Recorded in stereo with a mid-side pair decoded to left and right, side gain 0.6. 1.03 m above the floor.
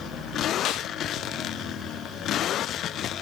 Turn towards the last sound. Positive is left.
turn(degrees=60)